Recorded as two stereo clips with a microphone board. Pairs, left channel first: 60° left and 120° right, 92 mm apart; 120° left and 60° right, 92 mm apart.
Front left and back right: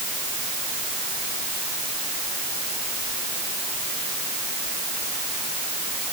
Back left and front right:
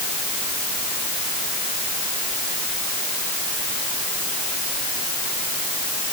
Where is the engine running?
I don't hear an engine running.